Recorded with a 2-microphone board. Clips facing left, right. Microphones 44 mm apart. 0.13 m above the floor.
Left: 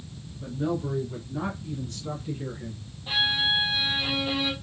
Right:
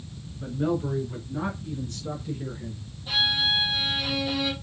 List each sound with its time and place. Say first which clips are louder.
0.4 s a man speaking: right 2 dB; 30° right (ahead or behind), 1.9 m; by 2.8 s 20° left (ahead or behind), 1.9 m
3.1 s a violin: even; 30° left (ahead or behind), 1.3 m